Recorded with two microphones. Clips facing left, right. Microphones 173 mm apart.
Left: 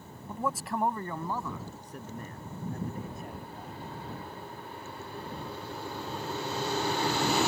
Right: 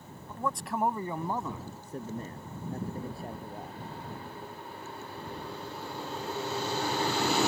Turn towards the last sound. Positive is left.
turn(degrees=-35)  # may be behind; listen again after turning